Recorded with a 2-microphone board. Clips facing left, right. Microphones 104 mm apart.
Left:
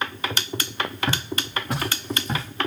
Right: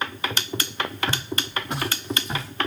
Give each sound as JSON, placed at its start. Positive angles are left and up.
{"t": 1.1, "sound": "footsteps", "side_deg": 50, "distance_m": 6.5}